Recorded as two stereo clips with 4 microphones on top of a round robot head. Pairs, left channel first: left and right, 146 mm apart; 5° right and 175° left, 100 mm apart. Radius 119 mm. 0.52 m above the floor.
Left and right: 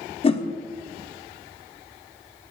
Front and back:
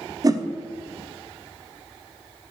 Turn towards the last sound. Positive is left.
turn(degrees=130)